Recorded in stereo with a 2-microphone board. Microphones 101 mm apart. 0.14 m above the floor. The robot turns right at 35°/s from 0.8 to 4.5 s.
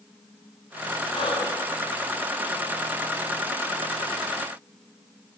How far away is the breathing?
About 9.5 m.